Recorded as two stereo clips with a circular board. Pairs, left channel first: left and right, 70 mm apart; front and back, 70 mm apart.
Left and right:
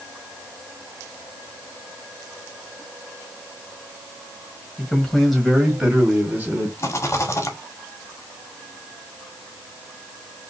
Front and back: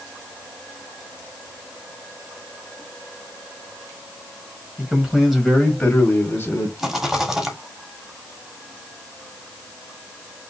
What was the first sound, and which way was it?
A man speaking, 150° left.